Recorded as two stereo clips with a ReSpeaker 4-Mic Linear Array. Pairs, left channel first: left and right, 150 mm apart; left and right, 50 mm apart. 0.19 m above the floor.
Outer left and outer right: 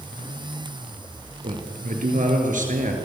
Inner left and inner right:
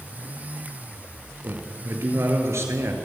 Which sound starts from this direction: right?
A man speaking, at 1.4 s.